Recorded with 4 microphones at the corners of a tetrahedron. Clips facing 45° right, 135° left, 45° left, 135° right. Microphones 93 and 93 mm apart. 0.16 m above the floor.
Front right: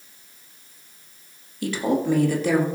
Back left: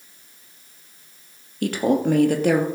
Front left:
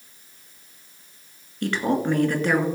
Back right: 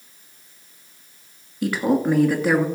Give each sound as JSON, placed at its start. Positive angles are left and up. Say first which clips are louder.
{"t": 1.6, "sound": "a woman speaking", "louder": "back left 3 dB, back right 3 dB", "azimuth_deg": 145, "distance_m": 2.0}